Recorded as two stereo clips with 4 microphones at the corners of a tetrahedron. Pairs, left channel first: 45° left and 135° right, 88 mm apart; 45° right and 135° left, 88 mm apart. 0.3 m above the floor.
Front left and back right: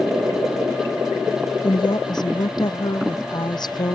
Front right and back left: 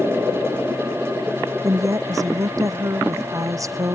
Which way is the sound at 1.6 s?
85° left.